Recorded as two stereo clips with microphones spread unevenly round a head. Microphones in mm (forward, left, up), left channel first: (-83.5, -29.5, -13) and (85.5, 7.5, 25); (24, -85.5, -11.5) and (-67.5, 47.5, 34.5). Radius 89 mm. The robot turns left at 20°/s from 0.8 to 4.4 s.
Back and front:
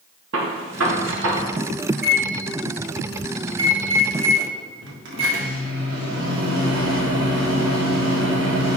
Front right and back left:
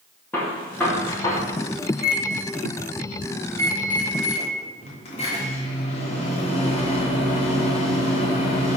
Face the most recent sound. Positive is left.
turn(degrees=0)